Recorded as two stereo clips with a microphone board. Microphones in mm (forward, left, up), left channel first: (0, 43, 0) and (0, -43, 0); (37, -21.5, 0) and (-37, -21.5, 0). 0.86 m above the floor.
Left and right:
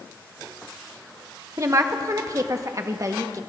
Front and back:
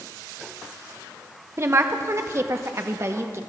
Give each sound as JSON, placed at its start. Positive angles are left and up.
{"t": 1.6, "sound": "a woman speaking", "azimuth_deg": -135, "distance_m": 0.8}